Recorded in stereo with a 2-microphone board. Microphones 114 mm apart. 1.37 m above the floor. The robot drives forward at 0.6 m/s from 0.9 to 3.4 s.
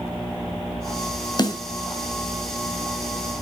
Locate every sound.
1.4 s a snare drum: 40° left (ahead or behind), 2.5 m